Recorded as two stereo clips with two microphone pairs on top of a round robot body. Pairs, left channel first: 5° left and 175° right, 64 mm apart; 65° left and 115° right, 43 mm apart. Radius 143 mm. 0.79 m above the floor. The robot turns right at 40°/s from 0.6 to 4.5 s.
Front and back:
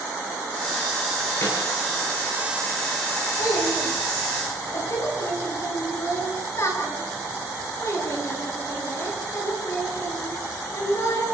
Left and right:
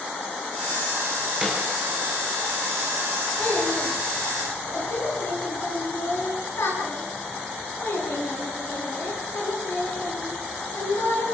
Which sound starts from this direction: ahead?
A child speaking, at 3.4 s.